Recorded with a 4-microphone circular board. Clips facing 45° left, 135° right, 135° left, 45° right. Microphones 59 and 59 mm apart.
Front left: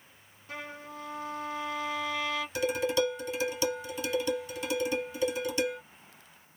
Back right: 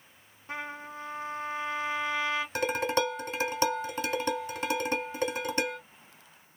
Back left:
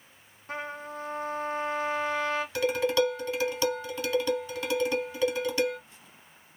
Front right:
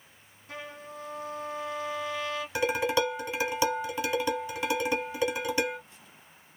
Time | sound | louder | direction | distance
0.5 | a trumpet | back right 3 dB, back left 5 dB | 175° left | 0.9 m
2.5 | dishes clattering | front left 1 dB, even | 115° right | 1.3 m